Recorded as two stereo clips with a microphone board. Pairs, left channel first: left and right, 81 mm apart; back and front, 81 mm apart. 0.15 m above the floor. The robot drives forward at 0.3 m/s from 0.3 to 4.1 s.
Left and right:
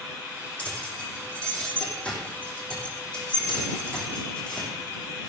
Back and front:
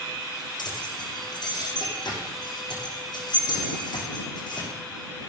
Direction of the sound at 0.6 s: 165° left.